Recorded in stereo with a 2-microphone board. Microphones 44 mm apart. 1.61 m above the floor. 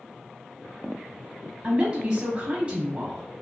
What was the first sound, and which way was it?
A woman speaking, 25° right (ahead or behind).